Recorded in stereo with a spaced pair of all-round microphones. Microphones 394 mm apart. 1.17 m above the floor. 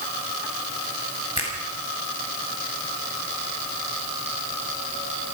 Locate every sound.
1.4 s a finger snap: 80° right, 5.5 m